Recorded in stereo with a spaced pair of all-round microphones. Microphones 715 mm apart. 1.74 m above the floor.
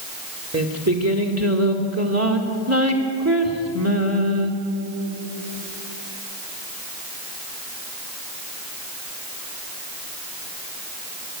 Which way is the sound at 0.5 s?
20° right (ahead or behind).